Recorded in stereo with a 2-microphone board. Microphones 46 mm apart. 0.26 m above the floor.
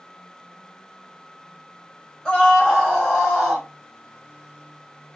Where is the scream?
Centre (ahead or behind), 1.2 m; by 3.7 s 25° right (ahead or behind), 1.7 m.